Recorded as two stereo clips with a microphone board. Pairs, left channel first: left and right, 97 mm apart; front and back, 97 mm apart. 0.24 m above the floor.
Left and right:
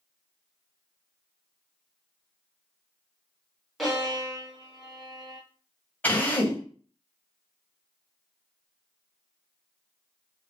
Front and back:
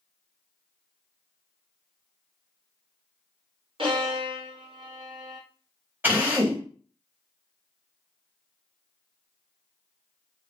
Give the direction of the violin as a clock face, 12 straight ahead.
6 o'clock.